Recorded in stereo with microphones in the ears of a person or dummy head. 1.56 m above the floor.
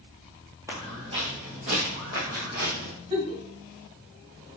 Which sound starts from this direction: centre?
Footsteps, at 0.7 s.